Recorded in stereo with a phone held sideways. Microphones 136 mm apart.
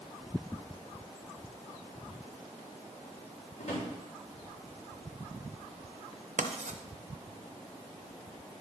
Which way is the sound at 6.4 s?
80° right.